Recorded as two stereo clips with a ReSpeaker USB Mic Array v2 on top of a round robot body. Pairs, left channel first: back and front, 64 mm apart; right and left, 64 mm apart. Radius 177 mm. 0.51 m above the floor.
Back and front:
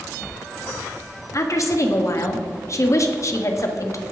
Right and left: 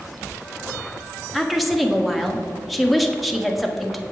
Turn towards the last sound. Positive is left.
turn(degrees=180)